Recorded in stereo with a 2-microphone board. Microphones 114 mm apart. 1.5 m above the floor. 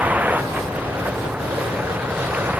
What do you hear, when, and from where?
0.0 s a vehicle: 15° right (ahead or behind)